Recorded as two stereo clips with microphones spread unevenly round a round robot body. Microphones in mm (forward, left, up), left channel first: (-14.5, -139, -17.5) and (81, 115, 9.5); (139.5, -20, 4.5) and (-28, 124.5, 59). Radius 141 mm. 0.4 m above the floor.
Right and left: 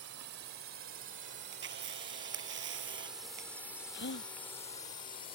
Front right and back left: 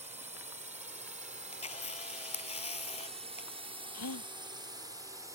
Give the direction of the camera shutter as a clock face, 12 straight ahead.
11 o'clock.